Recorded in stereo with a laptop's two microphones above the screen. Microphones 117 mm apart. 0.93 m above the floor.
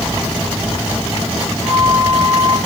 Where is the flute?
30° right (ahead or behind), 3 m.